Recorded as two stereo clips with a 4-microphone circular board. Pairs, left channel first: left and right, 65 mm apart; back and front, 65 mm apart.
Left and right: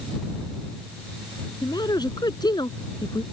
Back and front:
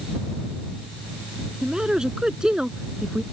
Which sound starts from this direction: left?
A man speaking, at 1.6 s.